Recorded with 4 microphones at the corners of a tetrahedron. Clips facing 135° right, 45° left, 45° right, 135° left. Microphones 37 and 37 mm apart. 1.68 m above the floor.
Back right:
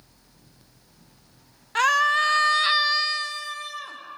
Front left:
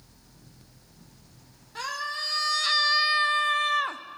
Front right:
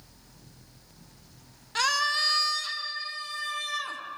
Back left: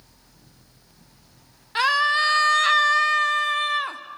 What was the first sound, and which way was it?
A scream, 160° right.